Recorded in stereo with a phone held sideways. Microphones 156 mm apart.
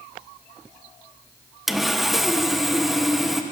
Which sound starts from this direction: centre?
Sawing, at 1.7 s.